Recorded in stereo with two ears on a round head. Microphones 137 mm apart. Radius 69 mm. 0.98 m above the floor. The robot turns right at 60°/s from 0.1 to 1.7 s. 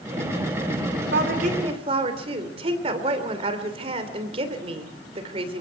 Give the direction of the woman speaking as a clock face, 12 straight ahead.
2 o'clock.